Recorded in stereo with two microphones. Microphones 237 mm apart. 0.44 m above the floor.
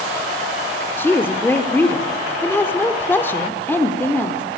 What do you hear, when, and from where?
1.0 s a woman speaking: 10° left (ahead or behind), 0.8 m